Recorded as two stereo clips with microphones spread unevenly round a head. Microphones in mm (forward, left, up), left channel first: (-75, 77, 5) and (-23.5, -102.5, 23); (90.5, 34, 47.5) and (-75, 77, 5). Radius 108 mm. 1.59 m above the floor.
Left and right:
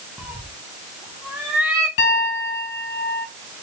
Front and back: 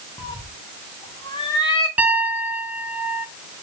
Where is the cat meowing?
5° right, 0.9 m.